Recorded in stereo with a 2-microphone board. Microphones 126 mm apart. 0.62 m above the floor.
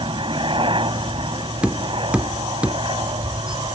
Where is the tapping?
10° right (ahead or behind).